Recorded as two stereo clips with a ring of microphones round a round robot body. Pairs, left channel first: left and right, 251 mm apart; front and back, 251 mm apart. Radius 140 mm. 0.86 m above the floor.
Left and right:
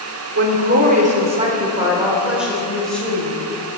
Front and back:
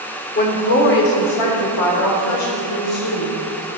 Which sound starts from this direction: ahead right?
A woman speaking, at 0.3 s.